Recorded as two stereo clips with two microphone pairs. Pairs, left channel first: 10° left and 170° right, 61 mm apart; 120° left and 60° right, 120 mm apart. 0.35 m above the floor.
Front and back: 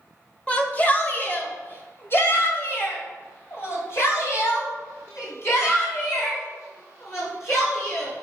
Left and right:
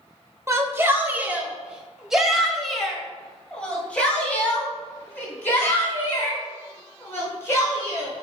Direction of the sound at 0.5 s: 25° right.